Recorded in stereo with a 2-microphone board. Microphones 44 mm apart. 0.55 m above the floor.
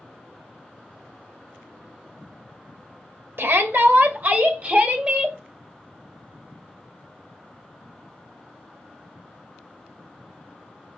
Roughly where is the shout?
Right.